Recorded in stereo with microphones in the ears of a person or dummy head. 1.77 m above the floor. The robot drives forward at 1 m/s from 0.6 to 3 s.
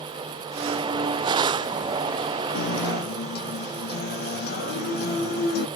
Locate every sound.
2.5 s a guitar: 60° left (ahead or behind), 1.7 m; by 5.7 s 50° left (ahead or behind), 2.0 m